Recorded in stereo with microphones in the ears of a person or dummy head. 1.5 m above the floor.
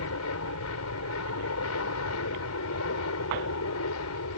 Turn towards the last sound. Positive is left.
turn(degrees=80)